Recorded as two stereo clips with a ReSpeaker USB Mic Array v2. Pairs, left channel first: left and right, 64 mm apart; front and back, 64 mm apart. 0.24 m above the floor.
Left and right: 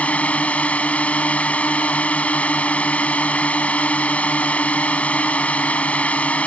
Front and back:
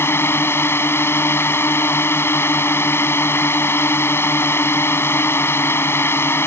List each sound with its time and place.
0.0 s a drone: 30° left